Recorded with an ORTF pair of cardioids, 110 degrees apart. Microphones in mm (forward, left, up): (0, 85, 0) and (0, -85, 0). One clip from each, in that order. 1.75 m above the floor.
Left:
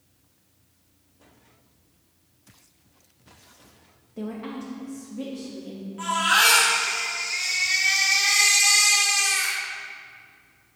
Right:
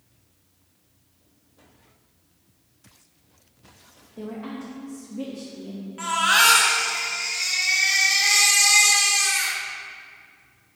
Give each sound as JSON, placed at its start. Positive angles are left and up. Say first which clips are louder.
{"t": 4.2, "sound": "a woman speaking", "louder": "left 1 dB", "azimuth_deg": 20, "distance_m": 0.9}
{"t": 6.0, "sound": "a baby crying", "louder": "right 1 dB", "azimuth_deg": -35, "distance_m": 1.6}